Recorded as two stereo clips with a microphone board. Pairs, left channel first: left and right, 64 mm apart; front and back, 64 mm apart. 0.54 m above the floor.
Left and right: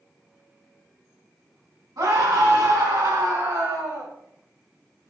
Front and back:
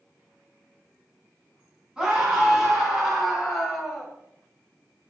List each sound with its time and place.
2.0 s a scream: 100° right, 4.5 m; by 4.1 s 85° right, 3 m